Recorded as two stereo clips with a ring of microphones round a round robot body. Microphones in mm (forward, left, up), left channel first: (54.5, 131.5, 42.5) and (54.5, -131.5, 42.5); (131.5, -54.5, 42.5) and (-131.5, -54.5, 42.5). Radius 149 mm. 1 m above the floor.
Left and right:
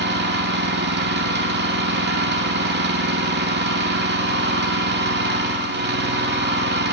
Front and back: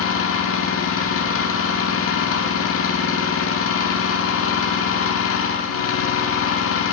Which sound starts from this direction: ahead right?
An engine running, at 0.0 s.